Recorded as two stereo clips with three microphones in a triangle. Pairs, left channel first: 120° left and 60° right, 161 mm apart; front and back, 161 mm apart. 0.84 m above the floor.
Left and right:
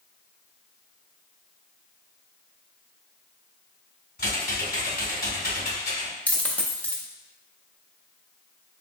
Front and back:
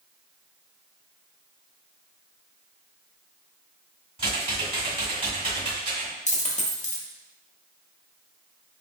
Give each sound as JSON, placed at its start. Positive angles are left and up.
{"t": 4.2, "sound": "typing on a keyboard", "azimuth_deg": 130, "distance_m": 1.6}
{"t": 6.3, "sound": "a dropped coin", "azimuth_deg": 40, "distance_m": 0.5}